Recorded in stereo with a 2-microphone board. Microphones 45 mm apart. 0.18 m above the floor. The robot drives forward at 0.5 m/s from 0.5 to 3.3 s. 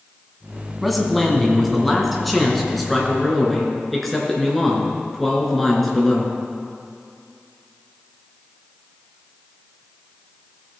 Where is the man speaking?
Centre (ahead or behind), 1.2 m.